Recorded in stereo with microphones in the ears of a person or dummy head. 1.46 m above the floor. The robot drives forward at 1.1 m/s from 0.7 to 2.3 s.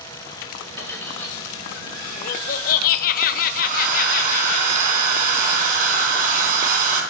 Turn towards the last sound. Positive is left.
turn(degrees=-50)  # may be behind; listen again after turning